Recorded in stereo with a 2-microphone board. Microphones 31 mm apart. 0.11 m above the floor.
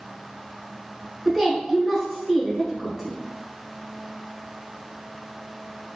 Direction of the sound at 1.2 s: 5° left (ahead or behind).